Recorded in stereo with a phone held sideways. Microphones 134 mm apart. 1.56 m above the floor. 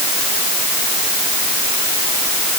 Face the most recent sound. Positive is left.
No sound to turn to.